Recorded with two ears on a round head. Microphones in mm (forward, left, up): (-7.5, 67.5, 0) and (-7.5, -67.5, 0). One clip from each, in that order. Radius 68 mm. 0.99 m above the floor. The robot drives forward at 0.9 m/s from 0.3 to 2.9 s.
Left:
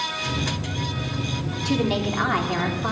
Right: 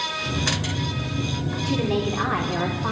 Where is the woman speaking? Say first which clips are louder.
Left 1 dB; 75° left (ahead or behind), 2.5 m; by 2.9 s 70° left (ahead or behind), 2.5 m.